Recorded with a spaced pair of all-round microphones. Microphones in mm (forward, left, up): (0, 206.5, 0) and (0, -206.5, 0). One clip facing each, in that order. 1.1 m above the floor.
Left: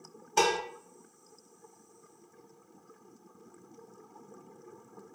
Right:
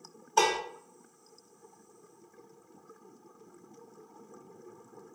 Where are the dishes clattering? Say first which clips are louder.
Left 1 dB; 40° left (ahead or behind), 0.6 m.